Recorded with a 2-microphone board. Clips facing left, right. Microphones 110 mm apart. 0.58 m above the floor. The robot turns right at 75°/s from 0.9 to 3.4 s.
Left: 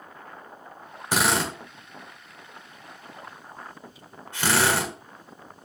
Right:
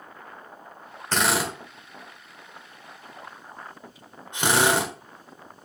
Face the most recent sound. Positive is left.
turn(degrees=-20)  # may be behind; listen again after turning